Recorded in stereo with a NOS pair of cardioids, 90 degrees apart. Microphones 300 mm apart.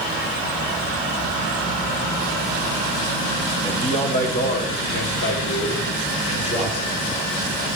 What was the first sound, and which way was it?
A man speaking, 10° left.